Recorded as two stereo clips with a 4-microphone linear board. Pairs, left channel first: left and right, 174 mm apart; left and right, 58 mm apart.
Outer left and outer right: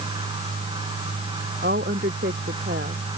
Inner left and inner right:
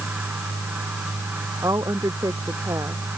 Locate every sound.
1.6 s a woman speaking: 80° right